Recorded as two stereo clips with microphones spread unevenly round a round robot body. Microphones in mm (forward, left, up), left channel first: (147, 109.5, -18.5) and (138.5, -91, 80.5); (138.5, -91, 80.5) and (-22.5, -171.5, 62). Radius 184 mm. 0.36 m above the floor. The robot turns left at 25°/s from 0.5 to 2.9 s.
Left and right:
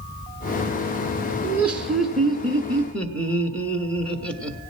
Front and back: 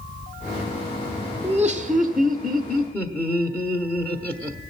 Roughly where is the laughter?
Behind left.